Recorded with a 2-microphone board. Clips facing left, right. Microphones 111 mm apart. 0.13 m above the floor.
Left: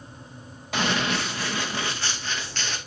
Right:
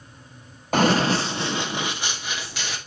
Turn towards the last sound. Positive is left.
turn(degrees=-10)  # may be behind; listen again after turning